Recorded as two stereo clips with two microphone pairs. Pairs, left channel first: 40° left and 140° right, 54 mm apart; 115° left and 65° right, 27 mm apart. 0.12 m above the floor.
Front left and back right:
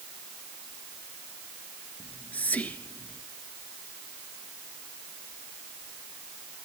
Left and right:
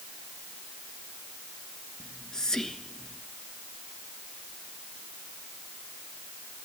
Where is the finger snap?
No finger snap in this recording.